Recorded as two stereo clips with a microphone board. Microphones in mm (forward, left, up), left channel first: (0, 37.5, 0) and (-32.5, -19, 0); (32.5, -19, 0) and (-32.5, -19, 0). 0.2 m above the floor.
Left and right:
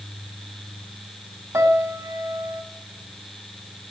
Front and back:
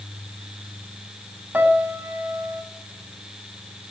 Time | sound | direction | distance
1.5 | a piano | 125° right | 1.5 m